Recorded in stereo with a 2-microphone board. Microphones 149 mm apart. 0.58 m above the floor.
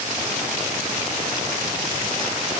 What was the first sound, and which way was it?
Only background noise.